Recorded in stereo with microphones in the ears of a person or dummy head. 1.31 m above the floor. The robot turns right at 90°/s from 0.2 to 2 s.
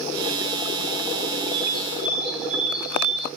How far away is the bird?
About 5 m.